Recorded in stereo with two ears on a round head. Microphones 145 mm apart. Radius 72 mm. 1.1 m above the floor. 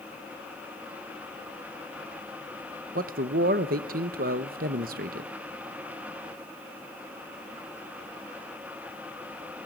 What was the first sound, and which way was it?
A man speaking, 55° right (ahead or behind).